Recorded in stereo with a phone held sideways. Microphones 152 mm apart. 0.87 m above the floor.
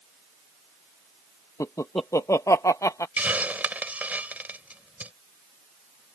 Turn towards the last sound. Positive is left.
turn(degrees=-10)  # may be behind; listen again after turning